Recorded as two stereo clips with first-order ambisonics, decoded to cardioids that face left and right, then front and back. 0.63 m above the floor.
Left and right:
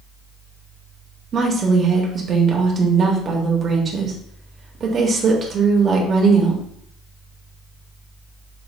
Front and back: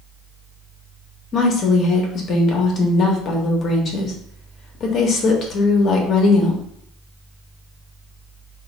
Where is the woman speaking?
35° right, 0.7 m.